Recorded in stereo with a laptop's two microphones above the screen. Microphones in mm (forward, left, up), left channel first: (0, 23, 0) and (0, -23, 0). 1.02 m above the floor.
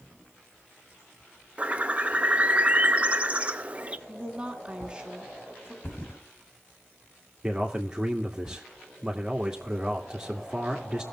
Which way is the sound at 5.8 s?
55° left (ahead or behind).